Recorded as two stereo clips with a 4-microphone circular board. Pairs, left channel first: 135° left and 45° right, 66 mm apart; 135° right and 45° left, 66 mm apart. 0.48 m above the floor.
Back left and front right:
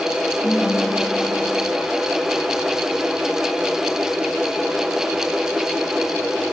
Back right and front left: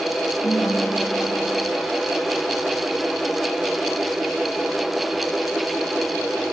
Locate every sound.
0.4 s a ringtone: 170° right, 7 m